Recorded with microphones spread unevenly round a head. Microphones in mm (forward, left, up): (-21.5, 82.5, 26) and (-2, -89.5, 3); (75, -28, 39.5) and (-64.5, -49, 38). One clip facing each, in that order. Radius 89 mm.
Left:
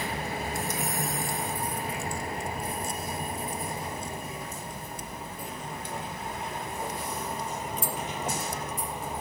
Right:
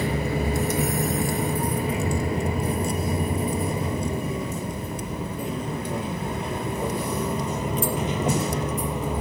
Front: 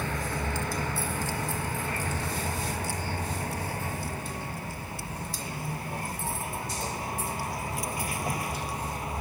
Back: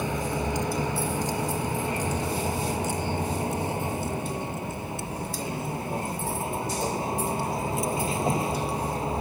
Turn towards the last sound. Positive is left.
turn(degrees=-105)